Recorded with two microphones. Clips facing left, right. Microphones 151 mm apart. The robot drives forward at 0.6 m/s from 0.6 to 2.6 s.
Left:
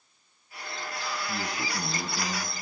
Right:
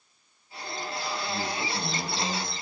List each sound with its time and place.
1.3 s a man speaking: 25° left (ahead or behind), 2.5 m; by 2.5 s 20° left (ahead or behind), 3 m